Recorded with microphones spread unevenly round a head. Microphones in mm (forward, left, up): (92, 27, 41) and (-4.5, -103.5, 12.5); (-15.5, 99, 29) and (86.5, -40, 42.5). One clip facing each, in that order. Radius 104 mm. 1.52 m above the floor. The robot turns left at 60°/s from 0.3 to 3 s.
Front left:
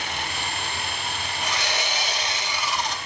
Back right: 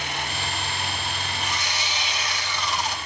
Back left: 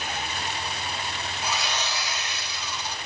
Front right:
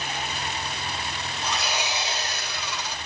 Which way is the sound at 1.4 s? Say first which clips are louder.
Front left 6 dB, front right 1 dB; 45° left.